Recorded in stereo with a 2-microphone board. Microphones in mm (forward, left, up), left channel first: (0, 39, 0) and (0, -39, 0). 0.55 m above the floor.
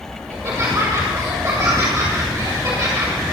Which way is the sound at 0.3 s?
40° right (ahead or behind).